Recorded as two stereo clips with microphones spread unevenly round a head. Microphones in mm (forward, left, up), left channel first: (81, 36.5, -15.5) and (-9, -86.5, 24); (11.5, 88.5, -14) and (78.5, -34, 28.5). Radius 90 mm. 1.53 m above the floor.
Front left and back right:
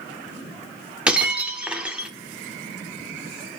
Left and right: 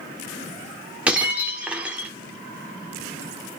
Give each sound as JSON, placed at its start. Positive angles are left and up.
{"t": 1.1, "sound": "breaking glass", "azimuth_deg": -85, "distance_m": 1.2}